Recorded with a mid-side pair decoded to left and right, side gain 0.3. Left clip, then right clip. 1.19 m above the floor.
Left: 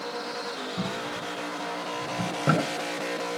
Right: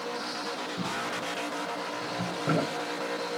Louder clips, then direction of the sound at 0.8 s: Even; 65° left.